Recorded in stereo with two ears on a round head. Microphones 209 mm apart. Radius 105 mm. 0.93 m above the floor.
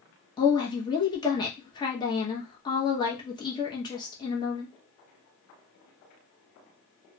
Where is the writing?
No writing in this recording.